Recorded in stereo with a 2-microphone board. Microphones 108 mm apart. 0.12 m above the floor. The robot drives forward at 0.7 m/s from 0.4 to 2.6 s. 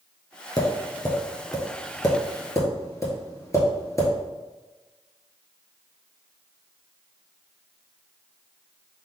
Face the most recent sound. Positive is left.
turn(degrees=30)  # may be behind; listen again after turning